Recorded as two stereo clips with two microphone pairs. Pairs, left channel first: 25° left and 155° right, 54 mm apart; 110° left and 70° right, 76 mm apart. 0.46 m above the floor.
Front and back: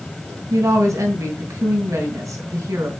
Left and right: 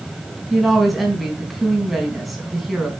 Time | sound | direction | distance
0.5 | a woman speaking | 160° right | 3.5 m